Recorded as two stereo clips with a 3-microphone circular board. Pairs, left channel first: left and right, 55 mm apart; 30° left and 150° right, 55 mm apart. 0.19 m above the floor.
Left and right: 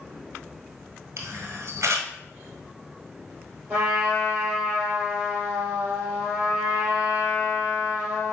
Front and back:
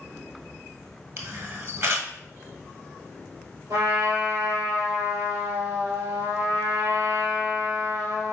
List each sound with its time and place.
1.2 s a camera shutter: 120° right, 1.0 m
3.7 s a trumpet: 155° right, 2.5 m